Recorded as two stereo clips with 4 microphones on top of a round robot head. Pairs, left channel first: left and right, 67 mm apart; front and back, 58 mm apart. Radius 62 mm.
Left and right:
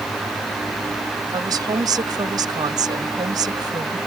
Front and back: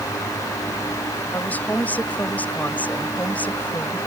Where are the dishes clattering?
No dishes clattering in this recording.